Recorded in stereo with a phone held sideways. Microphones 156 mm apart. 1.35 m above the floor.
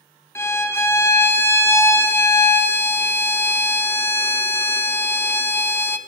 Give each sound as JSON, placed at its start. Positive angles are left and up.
{"t": 0.3, "sound": "a violin", "side_deg": 15, "distance_m": 0.7}